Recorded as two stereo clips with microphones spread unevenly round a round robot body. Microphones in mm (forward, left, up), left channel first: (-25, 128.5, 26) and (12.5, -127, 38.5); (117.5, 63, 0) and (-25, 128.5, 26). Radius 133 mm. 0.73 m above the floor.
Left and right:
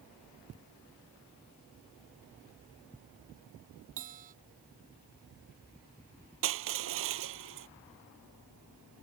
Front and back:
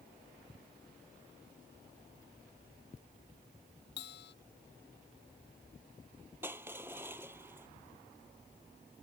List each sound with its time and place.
4.0 s a bell: 20° right
6.4 s crushing: 125° right